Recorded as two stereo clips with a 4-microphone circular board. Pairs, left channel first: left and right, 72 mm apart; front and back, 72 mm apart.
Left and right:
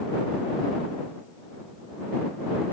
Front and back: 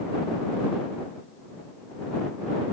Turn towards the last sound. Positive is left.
No sound to turn to.